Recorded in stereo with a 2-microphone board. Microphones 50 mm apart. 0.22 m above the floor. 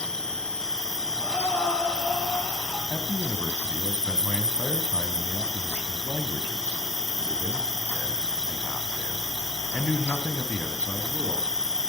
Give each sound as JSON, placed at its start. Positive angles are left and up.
{"t": 0.0, "sound": "an insect", "side_deg": 10, "distance_m": 1.0}
{"t": 1.2, "sound": "breathing", "side_deg": 25, "distance_m": 4.0}
{"t": 2.9, "sound": "a man speaking", "side_deg": 30, "distance_m": 1.7}